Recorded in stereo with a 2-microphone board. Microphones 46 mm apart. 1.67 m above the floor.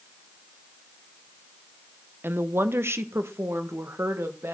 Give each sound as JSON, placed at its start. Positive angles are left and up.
{"t": 2.2, "sound": "a woman speaking", "side_deg": -55, "distance_m": 0.8}